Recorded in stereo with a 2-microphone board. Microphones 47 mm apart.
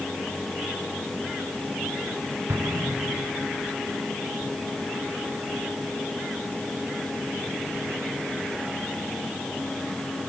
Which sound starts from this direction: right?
An explosion, at 2.5 s.